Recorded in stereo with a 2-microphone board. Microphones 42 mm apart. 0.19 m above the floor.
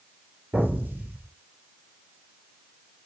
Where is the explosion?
35° right (ahead or behind), 2.5 m.